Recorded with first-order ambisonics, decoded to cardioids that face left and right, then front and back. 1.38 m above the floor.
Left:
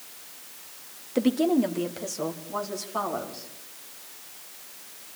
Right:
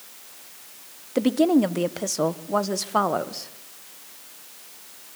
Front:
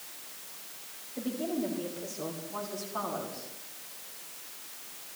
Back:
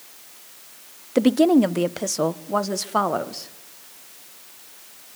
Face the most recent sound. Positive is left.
turn(degrees=-140)